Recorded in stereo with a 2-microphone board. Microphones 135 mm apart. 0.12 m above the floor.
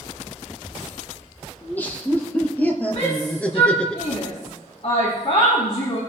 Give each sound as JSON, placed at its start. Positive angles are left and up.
{"t": 1.6, "sound": "laughter", "side_deg": 15, "distance_m": 3.0}
{"t": 3.0, "sound": "a shout", "side_deg": 55, "distance_m": 5.0}